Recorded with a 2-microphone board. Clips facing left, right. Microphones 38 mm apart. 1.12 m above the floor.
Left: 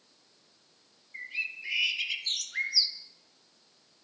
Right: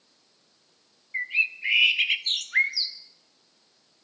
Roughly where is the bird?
Right.